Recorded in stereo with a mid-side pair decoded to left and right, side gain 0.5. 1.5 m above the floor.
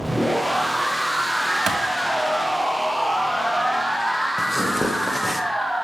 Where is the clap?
40° right, 1.9 m.